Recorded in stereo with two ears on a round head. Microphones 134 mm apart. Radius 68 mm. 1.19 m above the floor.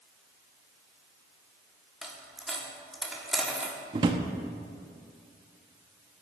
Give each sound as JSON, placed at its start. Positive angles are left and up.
{"t": 2.0, "sound": "a dropped coin", "side_deg": 0, "distance_m": 1.1}
{"t": 3.9, "sound": "a drawer", "side_deg": -30, "distance_m": 0.6}